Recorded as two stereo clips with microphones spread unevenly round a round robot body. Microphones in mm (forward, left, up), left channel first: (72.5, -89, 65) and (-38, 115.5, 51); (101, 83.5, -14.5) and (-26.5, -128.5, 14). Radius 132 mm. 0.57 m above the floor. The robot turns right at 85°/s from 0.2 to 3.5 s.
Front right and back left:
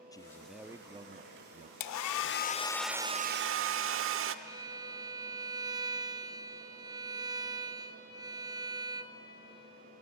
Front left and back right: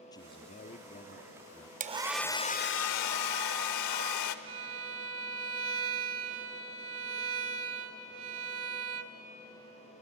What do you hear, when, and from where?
0.1 s a man speaking: 10° left, 0.8 m; by 1.7 s 135° left, 0.8 m
1.8 s a hair dryer: 60° right, 0.8 m; by 4.3 s 85° left, 0.8 m
4.5 s a violin: 165° right, 1.0 m